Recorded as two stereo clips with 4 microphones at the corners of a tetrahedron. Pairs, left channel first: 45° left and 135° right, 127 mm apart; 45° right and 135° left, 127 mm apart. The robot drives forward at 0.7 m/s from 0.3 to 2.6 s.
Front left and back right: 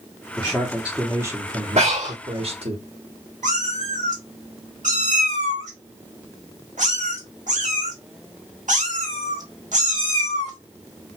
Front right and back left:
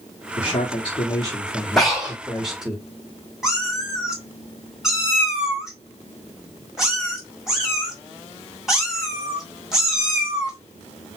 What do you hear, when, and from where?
0.4 s a man speaking: 35° right, 1.2 m; by 2.8 s 140° right, 1.2 m
1.8 s breathing: 135° right, 1.4 m; by 2.2 s 140° right, 1.6 m
3.4 s a cat meowing: 140° right, 1.3 m